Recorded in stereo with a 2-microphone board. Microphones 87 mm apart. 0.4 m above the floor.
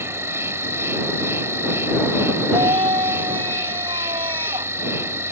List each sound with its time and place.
0.0 s an insect: 30° right (ahead or behind)
2.5 s a scream: 85° right